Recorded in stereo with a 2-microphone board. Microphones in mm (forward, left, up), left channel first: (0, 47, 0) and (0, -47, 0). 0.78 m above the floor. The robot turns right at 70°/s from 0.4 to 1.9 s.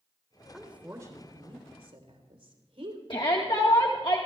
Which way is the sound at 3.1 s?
55° left (ahead or behind).